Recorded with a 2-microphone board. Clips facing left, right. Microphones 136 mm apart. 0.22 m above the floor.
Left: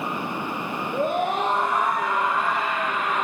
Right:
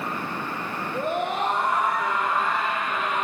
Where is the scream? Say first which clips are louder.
Left 3 dB; 65° left (ahead or behind), 7 m; by 3.2 s 60° left (ahead or behind), 7.5 m.